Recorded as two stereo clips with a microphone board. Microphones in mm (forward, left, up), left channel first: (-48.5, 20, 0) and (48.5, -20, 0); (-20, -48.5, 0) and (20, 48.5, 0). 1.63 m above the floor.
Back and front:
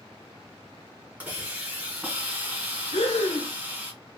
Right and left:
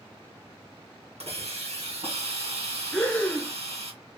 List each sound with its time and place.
1.2 s a hiss: 55° left, 1.9 m
2.9 s breathing: 170° left, 0.9 m